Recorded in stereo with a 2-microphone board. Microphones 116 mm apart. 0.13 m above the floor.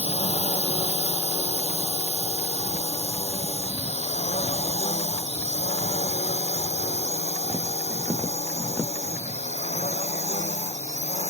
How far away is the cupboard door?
I don't hear a cupboard door.